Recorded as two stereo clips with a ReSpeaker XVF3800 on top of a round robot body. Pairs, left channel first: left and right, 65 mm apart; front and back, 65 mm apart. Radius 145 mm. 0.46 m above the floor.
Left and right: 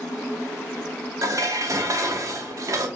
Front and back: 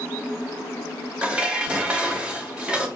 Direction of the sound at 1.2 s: 110° right.